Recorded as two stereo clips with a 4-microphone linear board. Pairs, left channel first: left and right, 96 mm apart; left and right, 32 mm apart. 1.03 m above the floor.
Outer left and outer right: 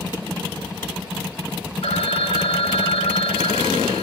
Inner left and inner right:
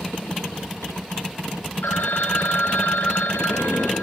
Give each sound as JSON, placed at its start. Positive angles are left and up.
{"t": 1.8, "sound": "a phone ringing", "side_deg": 85, "distance_m": 0.8}